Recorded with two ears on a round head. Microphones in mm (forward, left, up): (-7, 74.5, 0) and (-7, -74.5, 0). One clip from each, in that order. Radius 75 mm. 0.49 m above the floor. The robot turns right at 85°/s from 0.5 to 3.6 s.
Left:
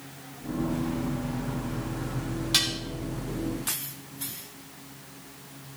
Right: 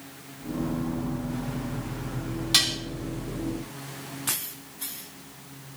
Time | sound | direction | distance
2.5 | dishes clattering | 10° right (ahead or behind) | 2.5 m